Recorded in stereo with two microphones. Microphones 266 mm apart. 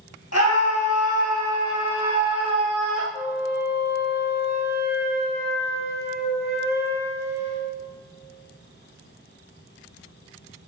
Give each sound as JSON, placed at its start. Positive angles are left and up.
{"t": 0.3, "sound": "a scream", "side_deg": 70, "distance_m": 3.0}
{"t": 3.1, "sound": "a flute", "side_deg": 40, "distance_m": 2.5}